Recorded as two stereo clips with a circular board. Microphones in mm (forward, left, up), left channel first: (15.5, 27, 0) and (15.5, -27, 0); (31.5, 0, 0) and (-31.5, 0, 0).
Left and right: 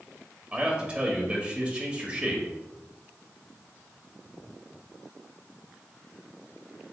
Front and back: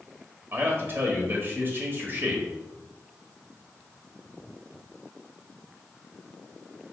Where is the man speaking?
150° right, 1.2 m.